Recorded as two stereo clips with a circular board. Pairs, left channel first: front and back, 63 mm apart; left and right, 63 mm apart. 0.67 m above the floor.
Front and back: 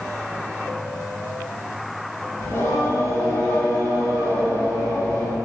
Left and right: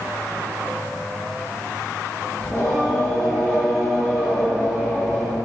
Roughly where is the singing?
Ahead left.